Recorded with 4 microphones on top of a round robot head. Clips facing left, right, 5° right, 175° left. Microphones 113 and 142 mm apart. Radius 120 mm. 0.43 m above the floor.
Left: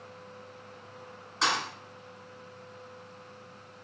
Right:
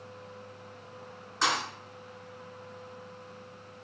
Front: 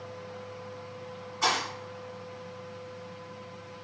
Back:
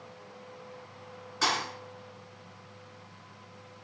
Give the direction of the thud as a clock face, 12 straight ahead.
6 o'clock.